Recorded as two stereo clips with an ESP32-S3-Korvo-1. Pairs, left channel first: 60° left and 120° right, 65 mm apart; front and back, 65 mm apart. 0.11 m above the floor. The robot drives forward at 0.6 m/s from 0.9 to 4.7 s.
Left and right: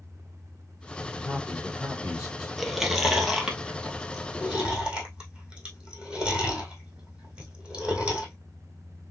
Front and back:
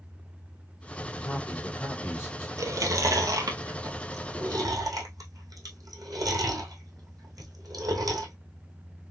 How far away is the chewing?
About 1.4 m.